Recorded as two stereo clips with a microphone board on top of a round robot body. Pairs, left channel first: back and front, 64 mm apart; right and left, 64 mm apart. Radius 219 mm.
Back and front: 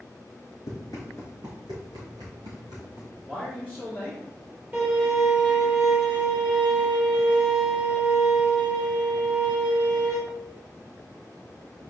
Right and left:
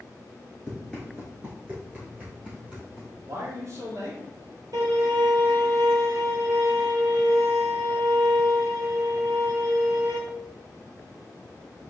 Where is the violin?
65° left, 2 m.